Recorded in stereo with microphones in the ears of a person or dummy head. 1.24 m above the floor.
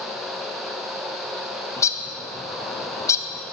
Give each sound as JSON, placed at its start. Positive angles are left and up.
{"t": 1.8, "sound": "a bird", "side_deg": 20, "distance_m": 0.5}